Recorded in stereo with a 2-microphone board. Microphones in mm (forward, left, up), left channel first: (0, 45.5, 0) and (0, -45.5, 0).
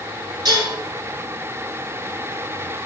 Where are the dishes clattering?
50° right (ahead or behind), 2.0 m.